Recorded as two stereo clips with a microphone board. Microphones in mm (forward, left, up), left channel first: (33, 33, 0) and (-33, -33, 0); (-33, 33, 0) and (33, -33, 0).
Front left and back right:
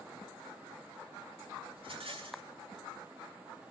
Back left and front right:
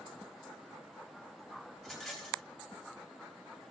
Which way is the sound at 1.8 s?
135° right.